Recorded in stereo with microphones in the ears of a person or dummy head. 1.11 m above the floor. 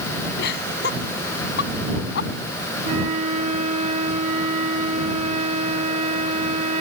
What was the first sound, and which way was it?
Laughter, 60° left (ahead or behind).